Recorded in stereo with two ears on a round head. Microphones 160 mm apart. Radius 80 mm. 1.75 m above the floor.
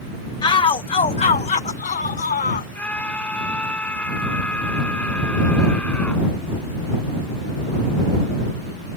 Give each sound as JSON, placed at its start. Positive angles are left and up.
{"t": 0.4, "sound": "a shout", "side_deg": 25}
{"t": 2.8, "sound": "a scream", "side_deg": 10}